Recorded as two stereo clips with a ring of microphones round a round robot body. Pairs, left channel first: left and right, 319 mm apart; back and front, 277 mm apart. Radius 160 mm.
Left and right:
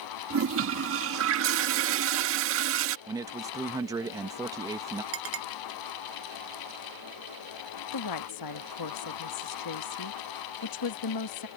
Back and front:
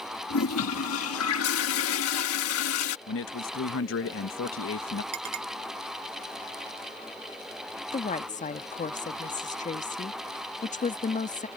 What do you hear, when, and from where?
0.3 s a toilet flushing: 140° right
3.1 s a man speaking: 165° right
5.1 s a clink: 40° right
7.9 s a woman speaking: 115° left